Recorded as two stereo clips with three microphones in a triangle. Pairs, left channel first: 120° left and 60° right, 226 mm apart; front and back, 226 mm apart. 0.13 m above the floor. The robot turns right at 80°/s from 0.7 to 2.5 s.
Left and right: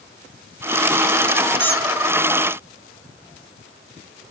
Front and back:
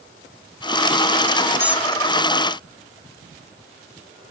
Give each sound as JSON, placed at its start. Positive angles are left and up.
{"t": 1.6, "sound": "a squeak", "azimuth_deg": -30}